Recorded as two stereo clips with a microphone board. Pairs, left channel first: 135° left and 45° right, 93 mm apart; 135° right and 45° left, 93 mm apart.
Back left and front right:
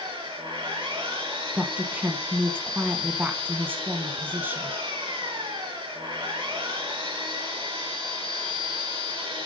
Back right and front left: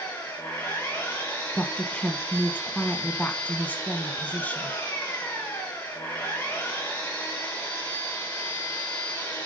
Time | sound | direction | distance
0.0 | an engine running | 65° right | 5 m
1.6 | a woman speaking | 80° right | 1.1 m